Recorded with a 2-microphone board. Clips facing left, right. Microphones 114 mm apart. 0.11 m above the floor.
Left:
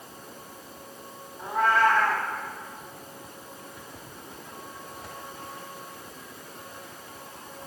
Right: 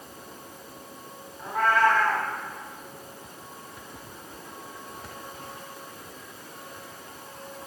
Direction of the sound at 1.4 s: 15° left (ahead or behind).